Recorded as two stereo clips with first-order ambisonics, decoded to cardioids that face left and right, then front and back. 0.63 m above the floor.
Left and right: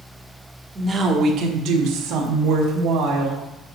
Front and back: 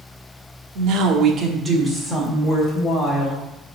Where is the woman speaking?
165° right, 1.2 m; by 3.4 s 75° right, 3 m.